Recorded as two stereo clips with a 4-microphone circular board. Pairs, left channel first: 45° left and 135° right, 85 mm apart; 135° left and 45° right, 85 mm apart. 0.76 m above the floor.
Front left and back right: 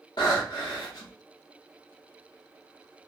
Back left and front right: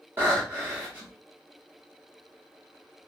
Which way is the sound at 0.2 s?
20° left.